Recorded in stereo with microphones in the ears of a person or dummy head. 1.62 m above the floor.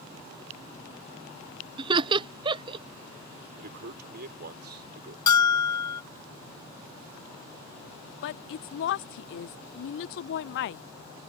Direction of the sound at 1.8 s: 25° right (ahead or behind).